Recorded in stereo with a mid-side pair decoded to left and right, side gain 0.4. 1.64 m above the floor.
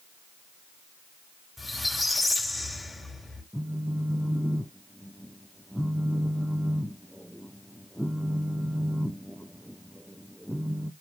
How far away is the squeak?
About 3.5 m.